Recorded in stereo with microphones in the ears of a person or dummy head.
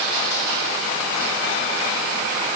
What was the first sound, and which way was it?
Only background noise.